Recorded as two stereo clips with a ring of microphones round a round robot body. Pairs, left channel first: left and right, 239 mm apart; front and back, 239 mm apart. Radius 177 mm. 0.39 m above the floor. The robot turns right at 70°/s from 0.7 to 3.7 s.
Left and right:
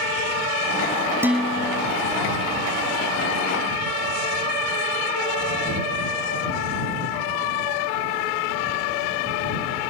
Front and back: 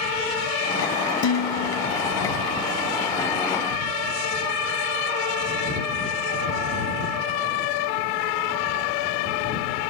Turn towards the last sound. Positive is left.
turn(degrees=165)